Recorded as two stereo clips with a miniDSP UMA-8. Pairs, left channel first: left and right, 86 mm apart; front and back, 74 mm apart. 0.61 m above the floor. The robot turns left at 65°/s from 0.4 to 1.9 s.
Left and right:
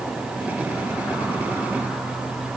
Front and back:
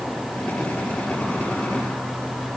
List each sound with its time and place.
Only background noise.